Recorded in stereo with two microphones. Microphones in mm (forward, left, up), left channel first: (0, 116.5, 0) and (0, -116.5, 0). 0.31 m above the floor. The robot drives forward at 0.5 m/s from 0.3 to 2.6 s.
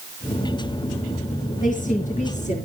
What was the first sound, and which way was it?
A woman speaking, 35° left (ahead or behind).